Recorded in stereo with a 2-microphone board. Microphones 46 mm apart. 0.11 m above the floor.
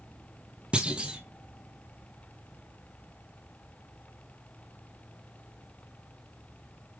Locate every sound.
0.7 s a clunk: 20° right (ahead or behind), 1.2 m